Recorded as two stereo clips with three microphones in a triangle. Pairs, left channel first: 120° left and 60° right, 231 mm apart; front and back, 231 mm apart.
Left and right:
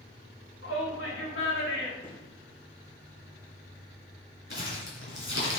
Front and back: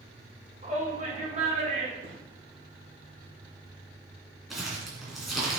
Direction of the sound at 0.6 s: 125° left.